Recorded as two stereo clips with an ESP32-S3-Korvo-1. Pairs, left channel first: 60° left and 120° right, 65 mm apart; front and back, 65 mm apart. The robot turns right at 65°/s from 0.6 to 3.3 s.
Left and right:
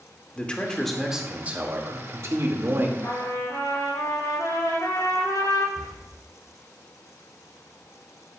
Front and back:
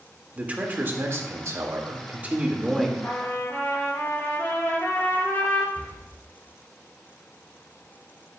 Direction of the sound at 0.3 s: 125° left.